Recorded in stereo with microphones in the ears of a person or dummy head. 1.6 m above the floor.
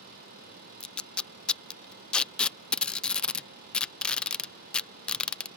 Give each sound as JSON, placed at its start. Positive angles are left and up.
{"t": 0.8, "sound": "tape being pulled", "side_deg": 5}